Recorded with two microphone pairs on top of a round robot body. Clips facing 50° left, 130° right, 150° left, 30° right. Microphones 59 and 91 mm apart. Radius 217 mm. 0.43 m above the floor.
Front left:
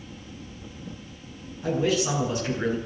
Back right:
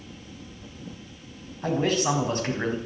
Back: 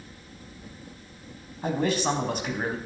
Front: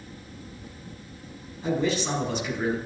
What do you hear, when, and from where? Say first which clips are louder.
1.6 s a man speaking: even, even; 170° right, 4.5 m